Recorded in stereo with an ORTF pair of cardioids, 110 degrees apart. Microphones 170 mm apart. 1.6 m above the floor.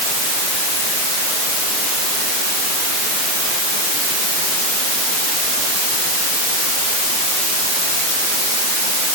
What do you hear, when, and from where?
Only background noise.